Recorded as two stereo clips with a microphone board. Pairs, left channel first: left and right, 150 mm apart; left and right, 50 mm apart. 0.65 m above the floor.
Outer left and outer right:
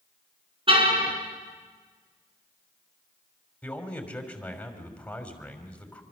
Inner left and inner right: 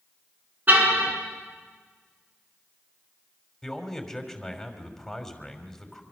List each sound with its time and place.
0.7 s a car horn: 35° right (ahead or behind), 4.5 m
3.6 s a man speaking: 10° left (ahead or behind), 3 m